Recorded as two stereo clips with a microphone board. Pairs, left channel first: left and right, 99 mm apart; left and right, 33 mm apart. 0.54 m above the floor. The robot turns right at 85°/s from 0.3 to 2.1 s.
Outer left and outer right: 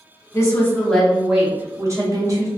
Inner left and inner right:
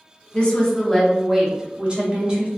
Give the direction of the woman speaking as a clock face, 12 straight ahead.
8 o'clock.